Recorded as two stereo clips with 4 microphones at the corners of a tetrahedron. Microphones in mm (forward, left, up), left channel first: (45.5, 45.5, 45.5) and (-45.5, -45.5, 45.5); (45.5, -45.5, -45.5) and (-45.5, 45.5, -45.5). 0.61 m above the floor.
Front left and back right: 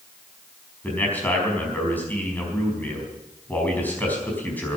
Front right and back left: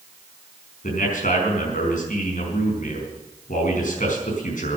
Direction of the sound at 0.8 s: 30° right.